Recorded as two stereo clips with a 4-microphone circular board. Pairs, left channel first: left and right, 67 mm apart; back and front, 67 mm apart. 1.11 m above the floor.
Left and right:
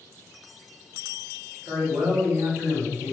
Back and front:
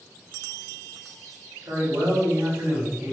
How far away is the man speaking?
About 2 m.